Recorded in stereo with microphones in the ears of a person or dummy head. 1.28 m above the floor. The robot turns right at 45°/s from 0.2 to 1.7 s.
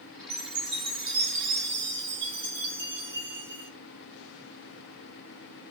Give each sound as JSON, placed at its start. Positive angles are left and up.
{"t": 0.3, "sound": "a chime", "azimuth_deg": -120, "distance_m": 1.8}